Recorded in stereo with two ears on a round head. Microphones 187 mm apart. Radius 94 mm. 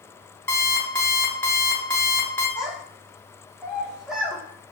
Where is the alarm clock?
10° left (ahead or behind), 0.8 m.